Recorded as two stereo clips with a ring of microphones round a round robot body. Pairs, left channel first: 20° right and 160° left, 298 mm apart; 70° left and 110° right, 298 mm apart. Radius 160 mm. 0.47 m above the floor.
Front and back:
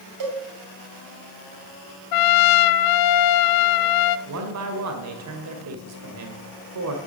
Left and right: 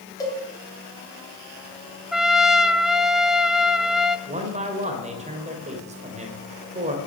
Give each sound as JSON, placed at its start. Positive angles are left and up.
{"t": 0.2, "sound": "a cowbell", "azimuth_deg": 145, "distance_m": 3.0}
{"t": 2.1, "sound": "a trumpet", "azimuth_deg": -25, "distance_m": 0.7}
{"t": 4.3, "sound": "a man speaking", "azimuth_deg": 180, "distance_m": 2.0}